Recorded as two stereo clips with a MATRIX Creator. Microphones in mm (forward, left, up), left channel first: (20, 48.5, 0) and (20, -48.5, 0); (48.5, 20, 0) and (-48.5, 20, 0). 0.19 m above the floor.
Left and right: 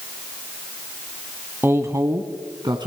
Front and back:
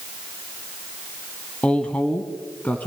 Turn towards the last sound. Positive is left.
turn(degrees=-70)